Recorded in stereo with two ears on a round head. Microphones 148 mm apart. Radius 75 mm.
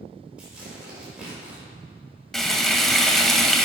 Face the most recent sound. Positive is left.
turn(degrees=0)  # may be behind; listen again after turning